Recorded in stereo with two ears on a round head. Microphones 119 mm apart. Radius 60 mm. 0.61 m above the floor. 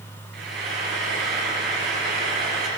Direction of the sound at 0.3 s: 80° right.